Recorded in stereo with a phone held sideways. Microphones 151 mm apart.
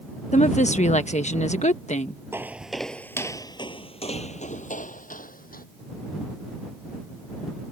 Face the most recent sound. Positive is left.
turn(degrees=65)  # may be behind; listen again after turning